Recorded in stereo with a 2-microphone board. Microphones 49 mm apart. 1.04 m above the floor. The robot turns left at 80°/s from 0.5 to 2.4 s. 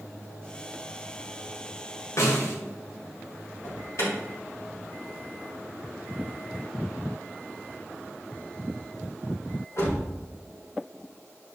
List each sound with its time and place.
2.2 s a snare drum: 80° left, 2 m; by 2.6 s 75° left (ahead or behind), 2 m
3.6 s an alarm: 70° left (ahead or behind), 4 m